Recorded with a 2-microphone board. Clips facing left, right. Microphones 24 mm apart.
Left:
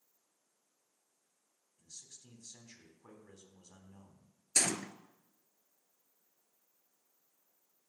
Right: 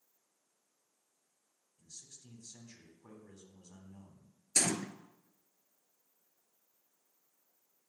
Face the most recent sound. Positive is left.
turn(degrees=5)  # may be behind; listen again after turning